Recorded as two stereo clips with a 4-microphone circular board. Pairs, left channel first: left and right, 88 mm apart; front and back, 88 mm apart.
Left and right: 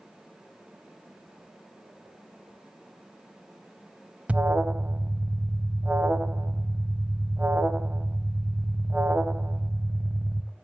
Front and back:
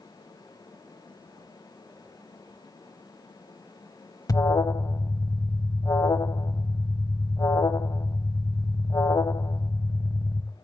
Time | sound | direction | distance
4.3 | an alarm | 20° right | 0.9 m